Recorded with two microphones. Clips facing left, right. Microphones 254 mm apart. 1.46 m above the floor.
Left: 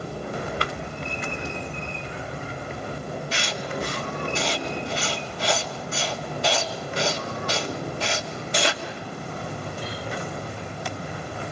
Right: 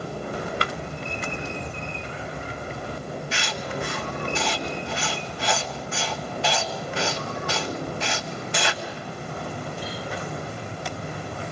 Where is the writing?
40° left (ahead or behind), 1.7 m.